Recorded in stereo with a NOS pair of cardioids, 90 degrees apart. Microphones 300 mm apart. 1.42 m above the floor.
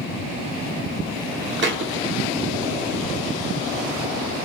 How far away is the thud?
About 2.5 m.